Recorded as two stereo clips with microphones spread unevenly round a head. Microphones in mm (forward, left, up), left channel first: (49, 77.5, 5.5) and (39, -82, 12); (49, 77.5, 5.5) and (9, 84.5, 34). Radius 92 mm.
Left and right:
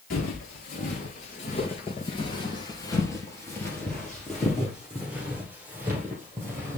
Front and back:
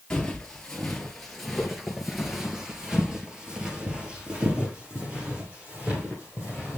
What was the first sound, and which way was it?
Footsteps, 90° left.